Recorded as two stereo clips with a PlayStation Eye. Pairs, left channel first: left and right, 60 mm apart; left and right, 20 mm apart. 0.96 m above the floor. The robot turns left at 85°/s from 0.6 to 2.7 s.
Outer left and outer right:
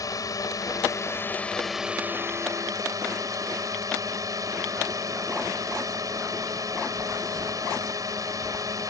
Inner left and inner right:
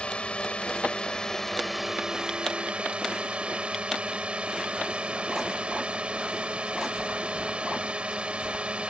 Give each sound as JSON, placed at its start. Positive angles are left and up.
{"t": 0.0, "sound": "a drone", "azimuth_deg": 95}